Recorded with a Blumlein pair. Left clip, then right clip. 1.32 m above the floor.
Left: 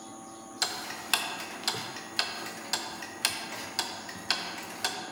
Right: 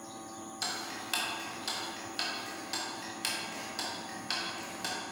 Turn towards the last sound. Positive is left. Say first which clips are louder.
# left 4 dB
turn(degrees=25)